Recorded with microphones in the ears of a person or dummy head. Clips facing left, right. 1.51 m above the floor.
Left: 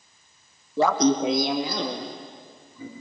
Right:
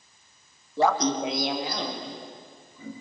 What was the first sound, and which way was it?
Laughter, 60° left (ahead or behind).